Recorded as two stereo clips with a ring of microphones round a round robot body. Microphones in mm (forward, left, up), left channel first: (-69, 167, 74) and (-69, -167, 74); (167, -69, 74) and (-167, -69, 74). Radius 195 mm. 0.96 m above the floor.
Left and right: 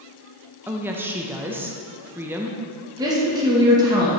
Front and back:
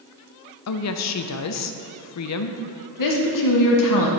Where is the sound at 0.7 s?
10° right, 0.6 m.